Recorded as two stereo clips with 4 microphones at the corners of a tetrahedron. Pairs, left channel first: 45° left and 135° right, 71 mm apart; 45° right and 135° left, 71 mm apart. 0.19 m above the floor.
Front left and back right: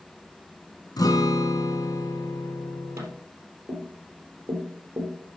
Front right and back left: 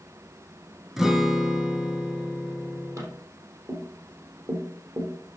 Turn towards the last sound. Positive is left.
turn(degrees=175)